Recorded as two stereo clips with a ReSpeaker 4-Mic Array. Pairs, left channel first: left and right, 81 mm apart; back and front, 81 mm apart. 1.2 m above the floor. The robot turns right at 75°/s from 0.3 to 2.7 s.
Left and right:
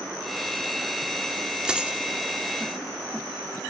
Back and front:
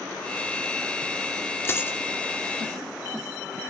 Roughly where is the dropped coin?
Behind.